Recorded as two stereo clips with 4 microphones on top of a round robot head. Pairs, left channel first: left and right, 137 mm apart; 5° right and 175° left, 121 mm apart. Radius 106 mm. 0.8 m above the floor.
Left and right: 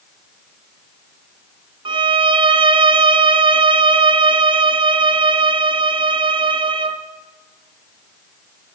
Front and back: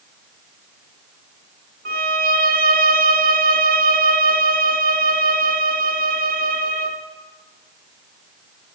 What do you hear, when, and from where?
1.9 s a violin: 145° right, 0.8 m